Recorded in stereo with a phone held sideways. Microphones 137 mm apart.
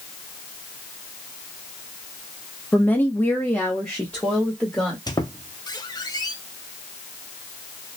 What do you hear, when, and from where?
2.7 s a woman speaking: 10° left (ahead or behind), 0.6 m; by 5.0 s 5° left (ahead or behind), 1.4 m
5.1 s a squeak: 30° left (ahead or behind), 0.6 m